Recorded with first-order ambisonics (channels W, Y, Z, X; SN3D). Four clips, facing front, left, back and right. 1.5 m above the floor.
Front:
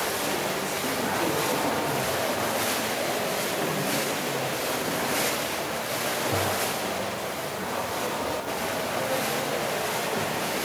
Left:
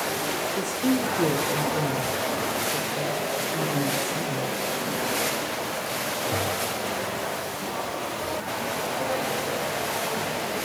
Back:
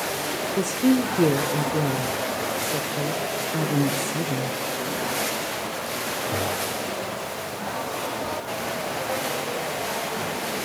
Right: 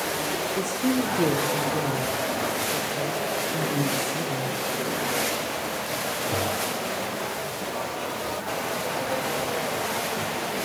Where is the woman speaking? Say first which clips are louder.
Even, back 7 dB; 175° right, 0.6 m.